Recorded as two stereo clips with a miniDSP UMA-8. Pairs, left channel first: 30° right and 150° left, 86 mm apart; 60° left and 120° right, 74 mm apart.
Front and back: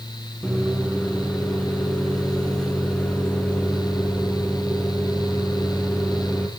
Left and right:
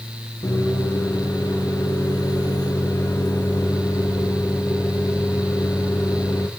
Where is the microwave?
50° left, 2 m.